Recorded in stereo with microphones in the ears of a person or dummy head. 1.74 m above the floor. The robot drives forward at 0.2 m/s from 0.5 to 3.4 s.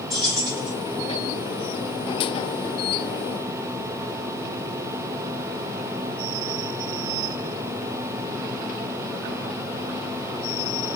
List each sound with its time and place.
0.1 s keys jangling: 10° left (ahead or behind), 1.5 m